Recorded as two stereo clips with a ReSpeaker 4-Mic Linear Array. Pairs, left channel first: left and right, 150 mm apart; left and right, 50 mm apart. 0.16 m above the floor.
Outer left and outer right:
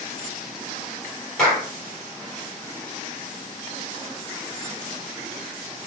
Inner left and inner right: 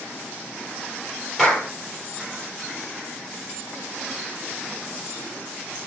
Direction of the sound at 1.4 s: 5° left (ahead or behind).